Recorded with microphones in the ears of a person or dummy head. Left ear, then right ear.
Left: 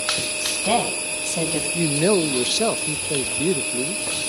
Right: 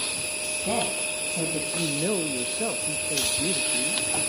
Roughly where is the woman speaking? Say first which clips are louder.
Left 5 dB; left.